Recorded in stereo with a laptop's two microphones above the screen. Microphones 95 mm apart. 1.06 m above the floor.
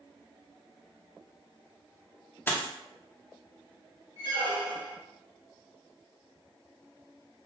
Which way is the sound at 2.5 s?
20° left (ahead or behind).